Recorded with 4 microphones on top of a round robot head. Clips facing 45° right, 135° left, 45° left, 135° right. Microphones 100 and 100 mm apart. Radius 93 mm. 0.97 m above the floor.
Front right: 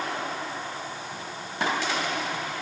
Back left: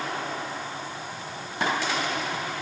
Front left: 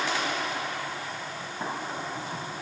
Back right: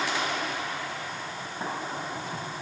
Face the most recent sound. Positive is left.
No sound to turn to.